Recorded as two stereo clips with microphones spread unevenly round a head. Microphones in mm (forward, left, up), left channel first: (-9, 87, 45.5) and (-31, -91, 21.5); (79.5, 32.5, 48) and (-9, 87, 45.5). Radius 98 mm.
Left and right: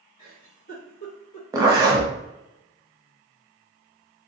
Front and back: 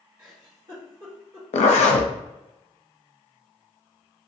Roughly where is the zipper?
Ahead right.